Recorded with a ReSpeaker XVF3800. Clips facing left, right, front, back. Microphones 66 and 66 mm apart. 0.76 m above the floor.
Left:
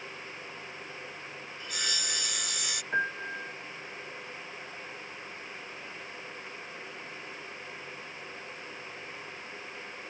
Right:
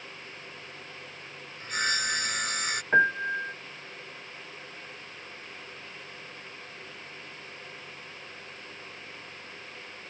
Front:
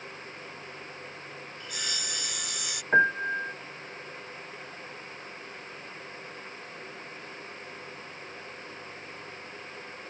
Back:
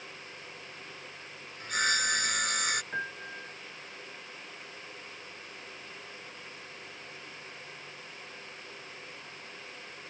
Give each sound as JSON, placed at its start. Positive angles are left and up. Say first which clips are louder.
{"t": 1.6, "sound": "sawing", "louder": "right 8 dB, back 10 dB", "azimuth_deg": -140}
{"t": 2.9, "sound": "a piano", "louder": "right 8 dB, front 14 dB", "azimuth_deg": -35}